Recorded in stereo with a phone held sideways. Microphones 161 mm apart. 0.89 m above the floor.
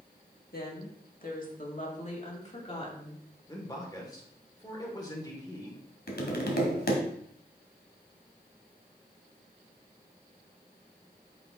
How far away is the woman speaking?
About 1.7 m.